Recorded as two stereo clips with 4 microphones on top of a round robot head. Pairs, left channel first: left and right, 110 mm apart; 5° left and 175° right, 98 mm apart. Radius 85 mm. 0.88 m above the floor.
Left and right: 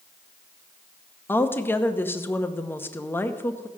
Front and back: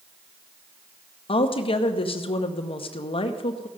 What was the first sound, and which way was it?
A woman speaking, 20° left.